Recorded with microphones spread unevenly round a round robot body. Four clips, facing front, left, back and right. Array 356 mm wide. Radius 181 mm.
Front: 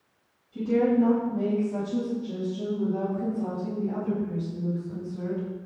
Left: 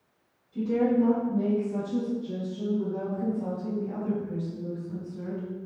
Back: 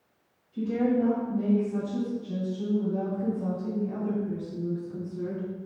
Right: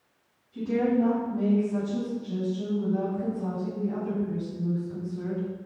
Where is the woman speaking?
45° left, 4.5 m; by 5.5 s 20° left, 6.5 m.